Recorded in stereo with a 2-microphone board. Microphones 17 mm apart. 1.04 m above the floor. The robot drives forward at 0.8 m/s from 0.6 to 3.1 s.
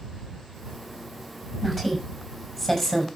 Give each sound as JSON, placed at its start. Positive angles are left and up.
{"t": 1.6, "sound": "a woman speaking", "side_deg": 20, "distance_m": 6.5}